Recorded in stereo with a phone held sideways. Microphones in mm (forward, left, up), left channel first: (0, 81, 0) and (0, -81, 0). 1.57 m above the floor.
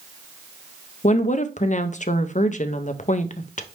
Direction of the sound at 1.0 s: 50° left (ahead or behind).